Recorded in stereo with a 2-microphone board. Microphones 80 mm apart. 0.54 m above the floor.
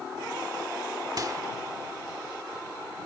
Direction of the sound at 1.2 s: 50° right (ahead or behind).